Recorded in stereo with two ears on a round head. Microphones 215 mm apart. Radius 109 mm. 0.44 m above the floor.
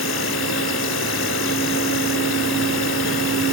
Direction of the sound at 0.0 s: 50° left (ahead or behind).